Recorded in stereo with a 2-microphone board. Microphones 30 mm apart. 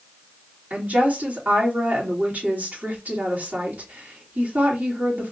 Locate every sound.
0.7 s a woman speaking: 75° right (ahead or behind), 3 m